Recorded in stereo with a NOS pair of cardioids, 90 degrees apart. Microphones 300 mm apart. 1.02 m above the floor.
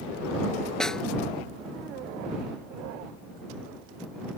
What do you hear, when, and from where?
0.8 s a snare drum: straight ahead